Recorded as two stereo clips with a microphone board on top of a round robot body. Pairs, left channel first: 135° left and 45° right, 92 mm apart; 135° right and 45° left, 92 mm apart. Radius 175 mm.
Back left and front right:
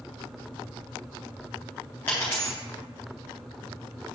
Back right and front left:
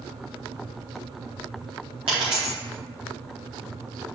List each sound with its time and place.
2.1 s a dropped coin: 65° left, 0.7 m